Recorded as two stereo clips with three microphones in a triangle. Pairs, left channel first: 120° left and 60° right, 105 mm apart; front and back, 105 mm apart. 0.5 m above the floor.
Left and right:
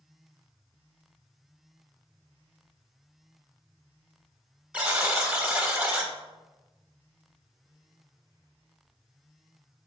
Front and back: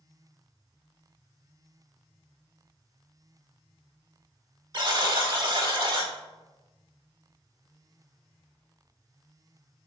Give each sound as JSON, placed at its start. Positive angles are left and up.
{"t": 4.7, "sound": "a buzzer", "azimuth_deg": -140, "distance_m": 0.5}